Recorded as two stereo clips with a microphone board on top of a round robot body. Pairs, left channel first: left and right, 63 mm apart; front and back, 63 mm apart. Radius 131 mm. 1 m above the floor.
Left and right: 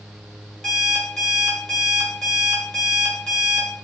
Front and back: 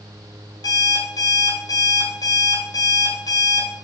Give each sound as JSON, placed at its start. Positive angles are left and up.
{"t": 0.6, "sound": "an alarm clock", "azimuth_deg": 5, "distance_m": 2.0}